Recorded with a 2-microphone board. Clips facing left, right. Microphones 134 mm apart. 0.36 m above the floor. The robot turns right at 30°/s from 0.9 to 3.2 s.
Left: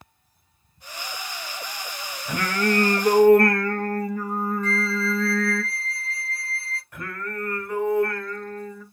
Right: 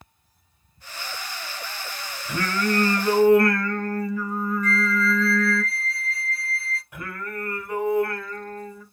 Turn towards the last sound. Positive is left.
turn(degrees=-10)  # may be behind; listen again after turning